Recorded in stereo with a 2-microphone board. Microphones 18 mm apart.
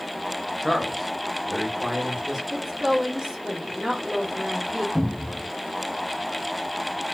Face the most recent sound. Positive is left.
turn(degrees=10)  # may be behind; listen again after turning